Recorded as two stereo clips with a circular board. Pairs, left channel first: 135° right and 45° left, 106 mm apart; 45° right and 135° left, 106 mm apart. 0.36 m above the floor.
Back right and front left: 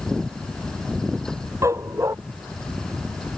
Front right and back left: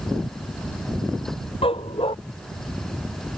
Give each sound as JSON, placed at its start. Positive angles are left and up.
{"t": 1.6, "sound": "a dog barking", "azimuth_deg": -15}